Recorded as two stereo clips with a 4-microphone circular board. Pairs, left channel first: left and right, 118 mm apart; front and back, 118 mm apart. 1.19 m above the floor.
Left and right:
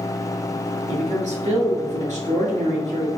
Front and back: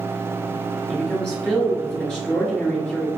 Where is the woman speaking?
90° right, 1.9 m.